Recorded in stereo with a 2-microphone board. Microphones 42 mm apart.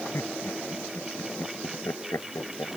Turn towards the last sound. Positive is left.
turn(degrees=85)